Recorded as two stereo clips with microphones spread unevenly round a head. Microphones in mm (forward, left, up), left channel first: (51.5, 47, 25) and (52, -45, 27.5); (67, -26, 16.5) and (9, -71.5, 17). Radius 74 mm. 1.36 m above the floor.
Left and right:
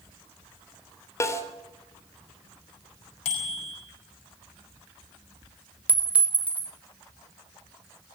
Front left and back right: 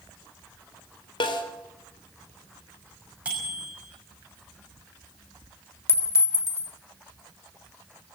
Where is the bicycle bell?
135° left, 5.5 m.